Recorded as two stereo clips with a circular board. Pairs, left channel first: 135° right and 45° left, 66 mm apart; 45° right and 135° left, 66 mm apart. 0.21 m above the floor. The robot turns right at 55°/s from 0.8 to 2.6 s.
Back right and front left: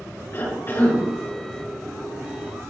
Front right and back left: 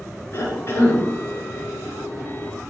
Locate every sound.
0.3 s a cough: 90° right, 4 m; by 1.0 s 75° right, 4 m